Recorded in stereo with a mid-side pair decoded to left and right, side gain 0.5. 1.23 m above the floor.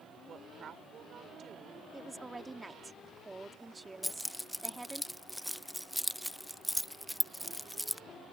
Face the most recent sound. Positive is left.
turn(degrees=0)